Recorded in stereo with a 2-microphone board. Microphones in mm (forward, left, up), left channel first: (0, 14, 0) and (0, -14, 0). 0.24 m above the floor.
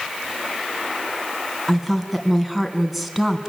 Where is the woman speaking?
5° right (ahead or behind), 2.5 m.